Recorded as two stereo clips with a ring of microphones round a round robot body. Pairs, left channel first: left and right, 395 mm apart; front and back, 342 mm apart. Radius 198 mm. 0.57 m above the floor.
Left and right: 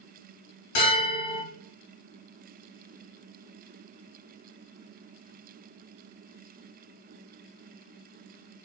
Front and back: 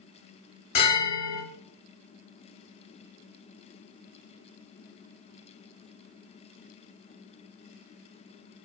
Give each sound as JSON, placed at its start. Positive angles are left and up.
{"t": 0.8, "sound": "a bell", "azimuth_deg": 40, "distance_m": 1.2}